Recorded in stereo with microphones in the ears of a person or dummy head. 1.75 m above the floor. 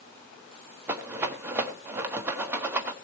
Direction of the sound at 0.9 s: 10° right (ahead or behind).